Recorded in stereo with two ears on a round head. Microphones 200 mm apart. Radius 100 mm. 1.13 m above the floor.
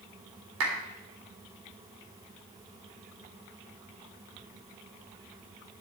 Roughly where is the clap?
Right.